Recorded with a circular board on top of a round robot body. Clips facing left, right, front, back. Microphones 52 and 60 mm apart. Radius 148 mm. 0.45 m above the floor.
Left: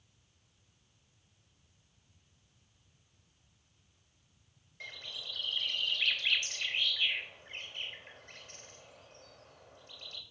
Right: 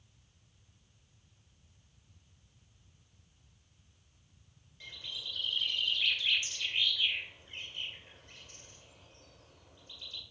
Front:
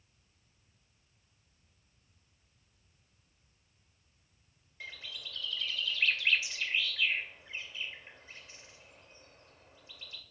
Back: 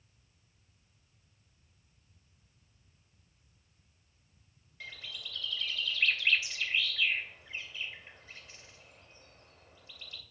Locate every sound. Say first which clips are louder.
4.8 s a bird: even, even; 65° left, 2.5 m